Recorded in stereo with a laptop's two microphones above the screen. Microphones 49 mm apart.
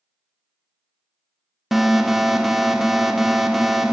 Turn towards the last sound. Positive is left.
turn(degrees=-5)  # may be behind; listen again after turning